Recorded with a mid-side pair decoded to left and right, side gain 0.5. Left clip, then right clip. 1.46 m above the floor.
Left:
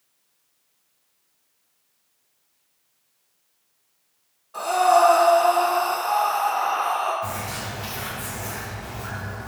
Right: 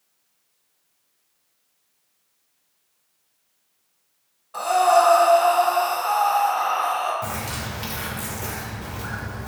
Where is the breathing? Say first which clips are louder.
Right 1 dB; 35° right, 1.0 m.